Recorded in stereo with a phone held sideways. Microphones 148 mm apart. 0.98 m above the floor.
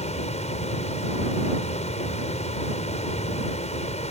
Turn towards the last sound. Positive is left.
turn(degrees=50)  # may be behind; listen again after turning